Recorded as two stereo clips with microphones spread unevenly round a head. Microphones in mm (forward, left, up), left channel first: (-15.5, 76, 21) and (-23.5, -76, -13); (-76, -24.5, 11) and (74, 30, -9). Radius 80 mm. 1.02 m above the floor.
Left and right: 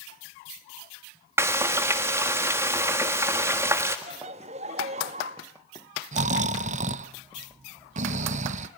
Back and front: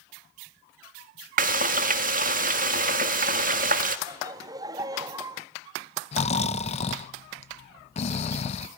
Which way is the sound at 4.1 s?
45° right.